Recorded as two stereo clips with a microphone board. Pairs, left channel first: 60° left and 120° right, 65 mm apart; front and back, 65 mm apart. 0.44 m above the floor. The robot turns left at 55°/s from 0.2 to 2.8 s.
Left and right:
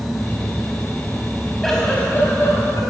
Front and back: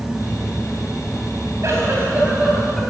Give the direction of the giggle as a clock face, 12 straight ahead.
7 o'clock.